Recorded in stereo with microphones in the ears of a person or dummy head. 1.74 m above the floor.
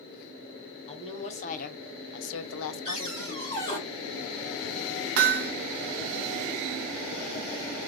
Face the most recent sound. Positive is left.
turn(degrees=-50)  # may be behind; listen again after turning